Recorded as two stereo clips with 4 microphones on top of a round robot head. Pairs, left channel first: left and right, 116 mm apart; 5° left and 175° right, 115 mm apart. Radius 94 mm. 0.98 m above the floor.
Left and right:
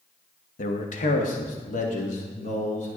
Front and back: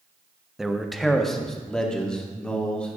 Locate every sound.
0.6 s a man speaking: 100° left, 1.1 m; by 3.0 s 85° left, 2.5 m